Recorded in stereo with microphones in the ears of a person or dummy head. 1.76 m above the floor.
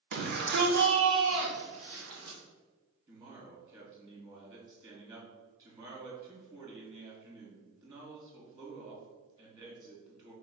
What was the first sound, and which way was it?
A shout, 50° right (ahead or behind).